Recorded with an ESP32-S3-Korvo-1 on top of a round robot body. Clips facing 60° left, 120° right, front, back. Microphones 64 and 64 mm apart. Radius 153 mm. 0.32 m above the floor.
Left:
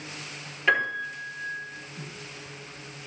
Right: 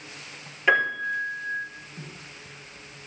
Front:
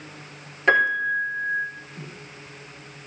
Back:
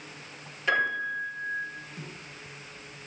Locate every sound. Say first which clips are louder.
0.7 s a piano: right 3 dB, front 7 dB; 35° right, 5.5 m